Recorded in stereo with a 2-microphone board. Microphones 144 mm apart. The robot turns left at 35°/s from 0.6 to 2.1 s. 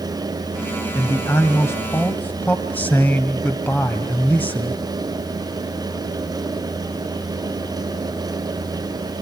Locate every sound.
0.9 s a man speaking: 20° left (ahead or behind), 1.4 m; by 4.8 s 10° left (ahead or behind), 1.4 m